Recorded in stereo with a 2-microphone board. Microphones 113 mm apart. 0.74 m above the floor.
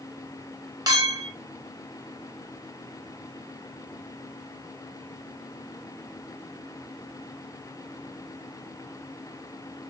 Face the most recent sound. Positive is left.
turn(degrees=-35)  # may be behind; listen again after turning